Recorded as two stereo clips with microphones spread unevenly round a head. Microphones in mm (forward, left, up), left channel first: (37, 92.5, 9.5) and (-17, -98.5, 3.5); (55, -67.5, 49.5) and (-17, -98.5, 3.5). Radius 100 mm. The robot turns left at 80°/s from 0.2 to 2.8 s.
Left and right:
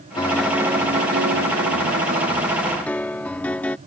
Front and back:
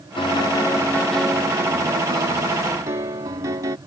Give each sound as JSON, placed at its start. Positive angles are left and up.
{"t": 0.2, "sound": "a piano", "azimuth_deg": 5}